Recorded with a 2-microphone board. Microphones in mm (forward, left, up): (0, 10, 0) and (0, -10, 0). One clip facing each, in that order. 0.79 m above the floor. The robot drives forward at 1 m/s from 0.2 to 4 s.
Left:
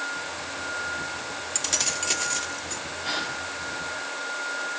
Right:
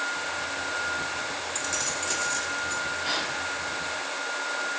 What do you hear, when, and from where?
1.6 s keys jangling: 55° left (ahead or behind), 1.0 m; by 2.8 s 25° left (ahead or behind), 2.0 m
3.0 s a gasp: 5° right (ahead or behind), 7 m